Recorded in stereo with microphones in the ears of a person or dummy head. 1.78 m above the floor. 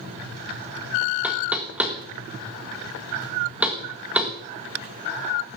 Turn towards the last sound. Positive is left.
turn(degrees=-5)  # may be behind; listen again after turning